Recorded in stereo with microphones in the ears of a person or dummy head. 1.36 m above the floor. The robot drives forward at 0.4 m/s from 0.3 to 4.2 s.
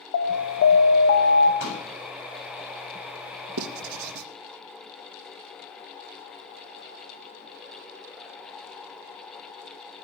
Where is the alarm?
60° left (ahead or behind), 1.9 m; by 1.5 s 50° left (ahead or behind), 2 m.